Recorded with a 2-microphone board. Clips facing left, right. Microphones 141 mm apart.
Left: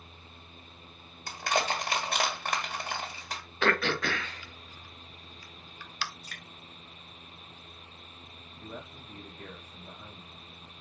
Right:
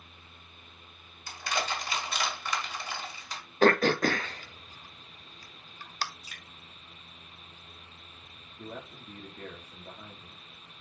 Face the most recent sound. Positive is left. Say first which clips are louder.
# right 2 dB
turn(degrees=-65)  # may be behind; listen again after turning